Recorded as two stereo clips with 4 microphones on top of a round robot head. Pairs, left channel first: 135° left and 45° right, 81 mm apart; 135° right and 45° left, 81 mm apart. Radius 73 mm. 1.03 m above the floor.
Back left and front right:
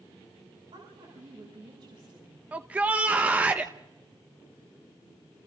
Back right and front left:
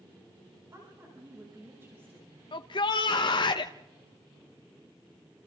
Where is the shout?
120° right, 1.0 m.